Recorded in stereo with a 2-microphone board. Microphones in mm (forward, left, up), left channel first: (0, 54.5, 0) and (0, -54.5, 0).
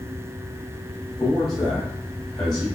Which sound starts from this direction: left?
A man speaking, at 1.2 s.